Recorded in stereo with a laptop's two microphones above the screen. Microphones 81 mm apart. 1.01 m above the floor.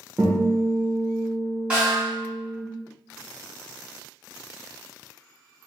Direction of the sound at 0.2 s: 30° right (ahead or behind).